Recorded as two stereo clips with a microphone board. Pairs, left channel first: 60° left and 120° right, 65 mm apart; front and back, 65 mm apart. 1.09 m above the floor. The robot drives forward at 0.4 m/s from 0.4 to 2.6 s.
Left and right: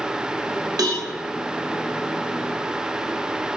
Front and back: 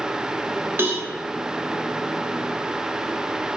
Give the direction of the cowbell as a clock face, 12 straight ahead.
4 o'clock.